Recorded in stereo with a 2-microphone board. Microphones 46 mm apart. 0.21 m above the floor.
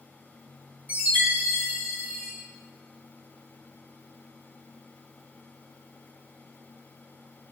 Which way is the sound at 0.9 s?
50° right (ahead or behind).